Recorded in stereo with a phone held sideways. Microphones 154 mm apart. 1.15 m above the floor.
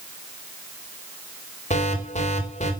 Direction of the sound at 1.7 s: 50° left (ahead or behind).